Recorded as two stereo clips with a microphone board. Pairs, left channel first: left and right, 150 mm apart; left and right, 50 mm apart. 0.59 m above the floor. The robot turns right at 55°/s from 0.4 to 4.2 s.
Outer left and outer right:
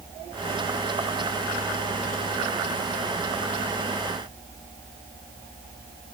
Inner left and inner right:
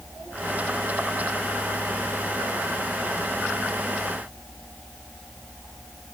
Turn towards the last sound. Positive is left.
No sound to turn to.